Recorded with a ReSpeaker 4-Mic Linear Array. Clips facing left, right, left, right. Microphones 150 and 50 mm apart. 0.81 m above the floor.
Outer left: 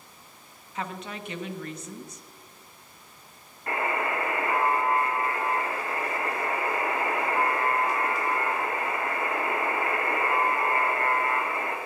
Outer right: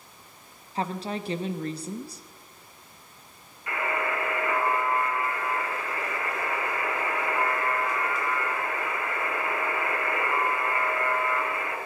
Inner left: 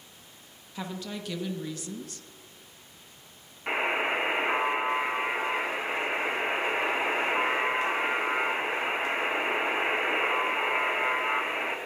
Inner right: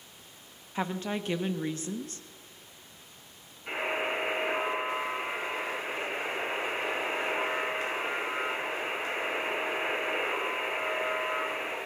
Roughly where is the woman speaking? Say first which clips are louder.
Outer right 5 dB, inner right 4 dB; right.